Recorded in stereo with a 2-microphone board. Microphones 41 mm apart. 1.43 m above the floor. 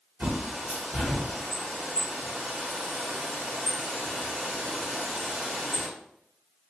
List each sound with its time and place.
0.2 s a bird: 30° right (ahead or behind), 1.3 m